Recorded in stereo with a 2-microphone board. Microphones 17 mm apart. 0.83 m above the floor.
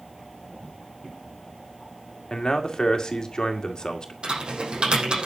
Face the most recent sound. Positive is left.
turn(degrees=-75)  # may be behind; listen again after turning